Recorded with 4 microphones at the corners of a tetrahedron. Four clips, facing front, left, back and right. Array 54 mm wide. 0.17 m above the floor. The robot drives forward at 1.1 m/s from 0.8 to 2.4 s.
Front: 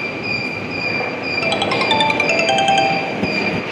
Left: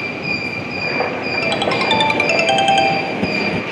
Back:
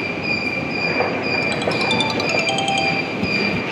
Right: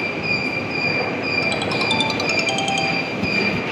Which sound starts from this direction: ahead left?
A ringtone, at 1.4 s.